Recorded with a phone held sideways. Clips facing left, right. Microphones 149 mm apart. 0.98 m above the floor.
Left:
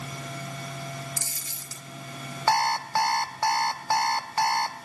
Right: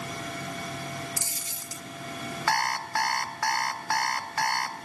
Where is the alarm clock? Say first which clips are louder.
Left 5 dB; 25° left (ahead or behind), 0.7 m.